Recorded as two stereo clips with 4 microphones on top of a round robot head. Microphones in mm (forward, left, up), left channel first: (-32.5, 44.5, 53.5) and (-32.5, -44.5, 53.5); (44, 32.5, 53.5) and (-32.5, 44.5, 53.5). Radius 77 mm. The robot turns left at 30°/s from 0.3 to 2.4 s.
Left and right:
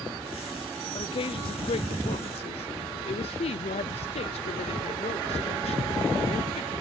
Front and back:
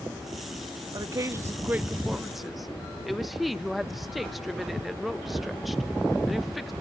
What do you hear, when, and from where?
0.9 s a woman speaking: 125° left, 0.7 m; by 6.7 s 80° left, 0.7 m